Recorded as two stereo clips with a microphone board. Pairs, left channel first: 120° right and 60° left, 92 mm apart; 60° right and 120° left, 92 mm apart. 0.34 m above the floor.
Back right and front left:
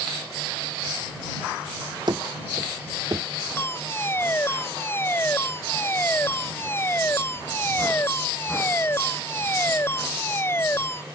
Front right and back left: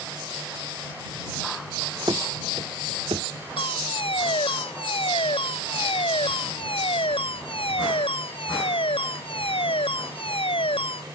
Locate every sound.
2.1 s running footsteps: 90° left; by 3.3 s 110° left
3.6 s a fire alarm: 55° right